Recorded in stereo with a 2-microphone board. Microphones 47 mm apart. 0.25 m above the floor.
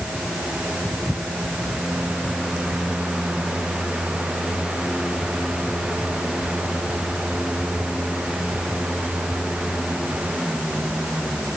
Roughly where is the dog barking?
I don't hear a dog barking.